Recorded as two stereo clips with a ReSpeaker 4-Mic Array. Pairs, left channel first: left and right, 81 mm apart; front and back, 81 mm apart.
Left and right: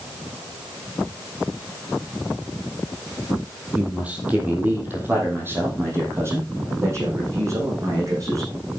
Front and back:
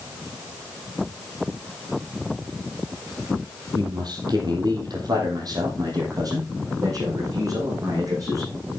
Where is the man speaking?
165° right, 3 m; by 8.5 s 140° right, 6 m.